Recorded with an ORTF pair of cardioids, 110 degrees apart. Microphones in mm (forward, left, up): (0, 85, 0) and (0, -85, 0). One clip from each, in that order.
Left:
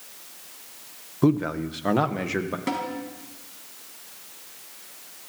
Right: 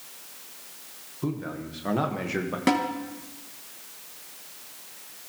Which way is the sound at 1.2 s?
55° left.